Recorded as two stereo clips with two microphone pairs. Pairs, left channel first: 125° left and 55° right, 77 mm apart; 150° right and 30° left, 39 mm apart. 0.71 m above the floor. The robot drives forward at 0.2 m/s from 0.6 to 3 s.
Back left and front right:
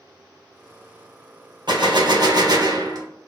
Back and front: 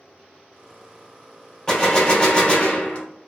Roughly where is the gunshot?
Right.